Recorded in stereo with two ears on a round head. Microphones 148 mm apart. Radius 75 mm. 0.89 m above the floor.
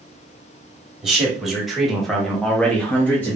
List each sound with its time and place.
1.0 s a man speaking: 5° right (ahead or behind), 1.4 m; by 3.4 s 10° left (ahead or behind), 0.8 m